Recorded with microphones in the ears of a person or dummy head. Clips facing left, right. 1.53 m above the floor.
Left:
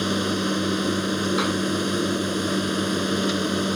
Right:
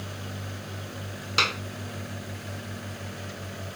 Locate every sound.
0.0 s a machine running: 85° left
1.4 s a clap: 35° right (ahead or behind)